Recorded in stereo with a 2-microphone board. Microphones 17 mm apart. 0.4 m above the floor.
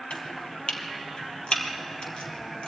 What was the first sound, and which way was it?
Chopping, 70° left (ahead or behind).